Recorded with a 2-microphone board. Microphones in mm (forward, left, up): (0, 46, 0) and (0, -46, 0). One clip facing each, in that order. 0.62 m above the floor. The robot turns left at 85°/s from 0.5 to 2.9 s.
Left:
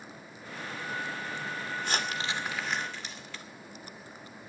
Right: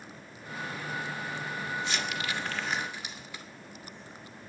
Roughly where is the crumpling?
Left.